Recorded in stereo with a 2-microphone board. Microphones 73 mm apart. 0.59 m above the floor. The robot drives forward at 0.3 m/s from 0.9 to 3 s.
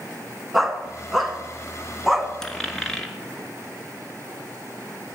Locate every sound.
0.5 s a dog barking: centre (ahead or behind), 1.6 m; by 2.3 s 5° right (ahead or behind), 1.2 m
2.4 s a dropped coin: 10° left (ahead or behind), 1.2 m